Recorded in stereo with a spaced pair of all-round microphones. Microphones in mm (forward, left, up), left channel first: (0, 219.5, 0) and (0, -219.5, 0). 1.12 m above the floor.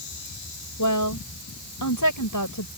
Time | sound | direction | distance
0.8 | a woman speaking | 45° left (ahead or behind) | ?